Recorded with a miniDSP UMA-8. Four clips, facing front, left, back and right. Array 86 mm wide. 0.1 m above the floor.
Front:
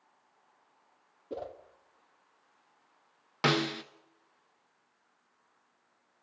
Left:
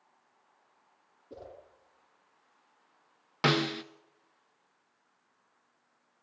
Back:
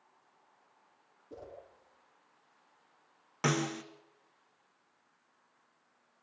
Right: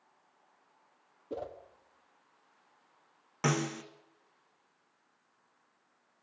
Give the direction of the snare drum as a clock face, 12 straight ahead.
10 o'clock.